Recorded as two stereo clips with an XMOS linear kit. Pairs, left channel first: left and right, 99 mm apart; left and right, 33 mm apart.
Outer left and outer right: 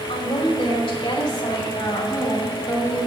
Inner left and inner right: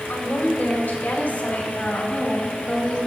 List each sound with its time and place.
0.1 s a woman speaking: 70° left (ahead or behind), 3.5 m; by 3.0 s 35° left (ahead or behind), 2 m